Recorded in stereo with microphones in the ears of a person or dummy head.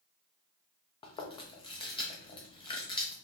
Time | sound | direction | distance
1.0 | chewing | 30° left (ahead or behind) | 0.8 m